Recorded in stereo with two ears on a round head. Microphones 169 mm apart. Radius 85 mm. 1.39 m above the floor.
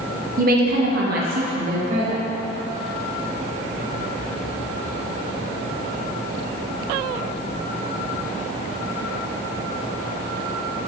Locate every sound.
0.4 s a woman speaking: 45° right (ahead or behind), 0.6 m; by 2.3 s 35° right (ahead or behind), 1.2 m